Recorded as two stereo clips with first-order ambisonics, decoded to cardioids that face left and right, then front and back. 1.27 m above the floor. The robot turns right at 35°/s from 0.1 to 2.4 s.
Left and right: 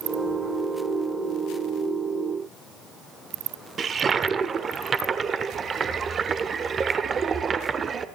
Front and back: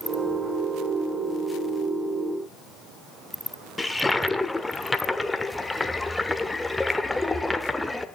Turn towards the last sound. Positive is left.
turn(degrees=-80)